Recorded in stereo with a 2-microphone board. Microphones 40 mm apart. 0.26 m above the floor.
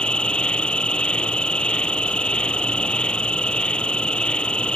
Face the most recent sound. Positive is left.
turn(degrees=25)  # may be behind; listen again after turning